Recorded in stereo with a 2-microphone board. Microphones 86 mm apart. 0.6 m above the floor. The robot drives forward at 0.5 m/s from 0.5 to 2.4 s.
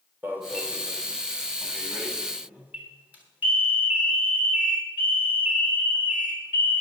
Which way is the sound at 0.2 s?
25° right (ahead or behind).